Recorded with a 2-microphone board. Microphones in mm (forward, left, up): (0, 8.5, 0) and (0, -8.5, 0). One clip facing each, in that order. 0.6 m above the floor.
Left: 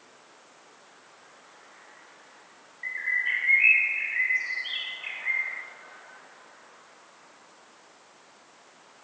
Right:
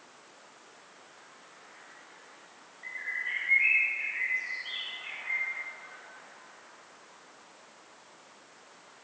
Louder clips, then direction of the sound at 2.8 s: Left 7 dB; 40° left (ahead or behind).